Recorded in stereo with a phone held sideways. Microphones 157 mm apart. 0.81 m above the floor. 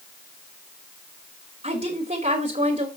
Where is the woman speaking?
50° right (ahead or behind), 2.5 m.